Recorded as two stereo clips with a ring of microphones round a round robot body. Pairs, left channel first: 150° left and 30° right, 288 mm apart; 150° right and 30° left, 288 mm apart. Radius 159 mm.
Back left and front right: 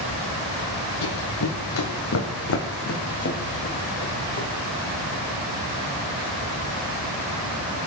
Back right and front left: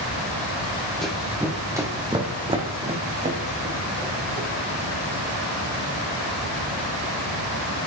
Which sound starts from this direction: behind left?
Running footsteps, at 1.0 s.